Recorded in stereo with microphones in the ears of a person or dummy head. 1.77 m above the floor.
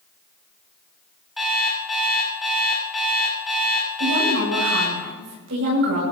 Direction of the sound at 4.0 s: 65° right (ahead or behind).